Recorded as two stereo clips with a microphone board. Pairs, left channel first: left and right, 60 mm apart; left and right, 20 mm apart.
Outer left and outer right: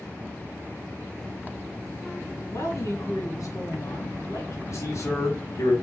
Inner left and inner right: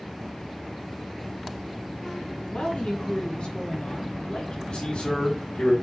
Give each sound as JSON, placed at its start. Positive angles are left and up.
{"t": 2.5, "sound": "a woman speaking", "side_deg": 65, "distance_m": 3.5}
{"t": 4.7, "sound": "a man speaking", "side_deg": 60, "distance_m": 4.0}